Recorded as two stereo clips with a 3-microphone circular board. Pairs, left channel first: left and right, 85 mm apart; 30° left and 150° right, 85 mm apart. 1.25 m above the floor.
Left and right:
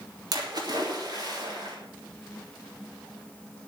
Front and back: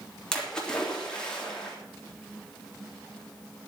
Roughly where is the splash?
Ahead right.